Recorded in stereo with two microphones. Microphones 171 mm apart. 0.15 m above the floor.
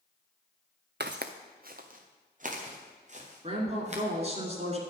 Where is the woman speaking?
40° right (ahead or behind), 2 m.